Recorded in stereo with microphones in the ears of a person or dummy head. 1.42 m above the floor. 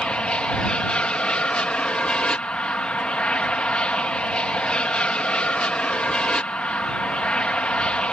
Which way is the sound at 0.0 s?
5° left (ahead or behind).